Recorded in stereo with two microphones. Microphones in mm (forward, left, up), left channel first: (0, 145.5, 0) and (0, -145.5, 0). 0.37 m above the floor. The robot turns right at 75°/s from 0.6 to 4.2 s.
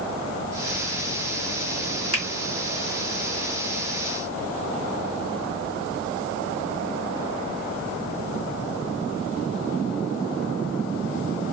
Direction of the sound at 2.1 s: 55° left (ahead or behind).